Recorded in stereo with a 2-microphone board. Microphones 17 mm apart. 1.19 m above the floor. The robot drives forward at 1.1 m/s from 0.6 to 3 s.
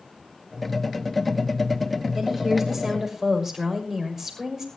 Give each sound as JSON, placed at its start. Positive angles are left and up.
{"t": 2.1, "sound": "a woman speaking", "side_deg": -25, "distance_m": 6.5}